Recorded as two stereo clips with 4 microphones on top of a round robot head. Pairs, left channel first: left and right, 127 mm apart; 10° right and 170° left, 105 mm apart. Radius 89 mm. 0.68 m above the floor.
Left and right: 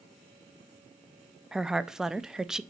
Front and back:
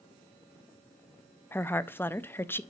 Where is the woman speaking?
10° right, 0.6 m.